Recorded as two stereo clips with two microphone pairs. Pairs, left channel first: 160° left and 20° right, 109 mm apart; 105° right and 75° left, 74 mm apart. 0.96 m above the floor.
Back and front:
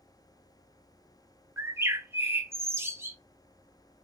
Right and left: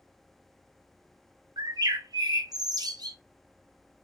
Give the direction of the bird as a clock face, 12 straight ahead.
10 o'clock.